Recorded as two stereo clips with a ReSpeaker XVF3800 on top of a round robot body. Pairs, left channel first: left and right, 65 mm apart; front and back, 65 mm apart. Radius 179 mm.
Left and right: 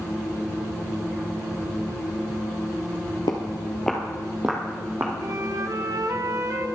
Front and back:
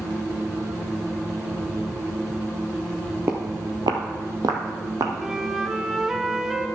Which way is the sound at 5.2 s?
100° right.